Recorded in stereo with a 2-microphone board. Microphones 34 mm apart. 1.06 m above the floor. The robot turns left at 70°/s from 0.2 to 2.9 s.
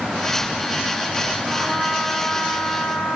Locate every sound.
1.4 s a trumpet: 20° right, 3 m; by 3.1 s 120° right, 3 m